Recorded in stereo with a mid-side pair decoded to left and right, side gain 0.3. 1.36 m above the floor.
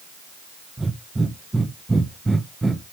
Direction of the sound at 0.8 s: 25° right.